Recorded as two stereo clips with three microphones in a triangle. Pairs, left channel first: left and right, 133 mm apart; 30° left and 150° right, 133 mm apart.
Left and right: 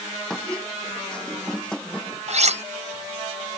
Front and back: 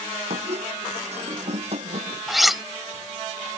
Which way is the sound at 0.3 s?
175° left.